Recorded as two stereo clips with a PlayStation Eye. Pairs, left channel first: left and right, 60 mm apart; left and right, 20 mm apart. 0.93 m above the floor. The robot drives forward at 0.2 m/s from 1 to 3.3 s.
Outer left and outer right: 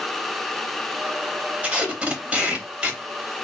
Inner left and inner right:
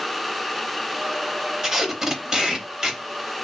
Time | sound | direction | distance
1.6 | tape being pulled | 25° right (ahead or behind) | 0.7 m